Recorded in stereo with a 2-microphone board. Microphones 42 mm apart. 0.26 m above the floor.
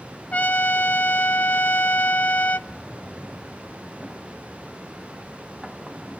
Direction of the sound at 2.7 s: 20° right (ahead or behind).